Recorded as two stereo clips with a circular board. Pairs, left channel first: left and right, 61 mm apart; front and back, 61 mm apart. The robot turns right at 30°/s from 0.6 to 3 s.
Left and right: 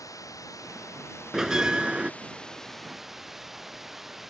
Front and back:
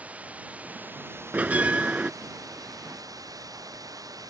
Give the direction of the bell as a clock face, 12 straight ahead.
5 o'clock.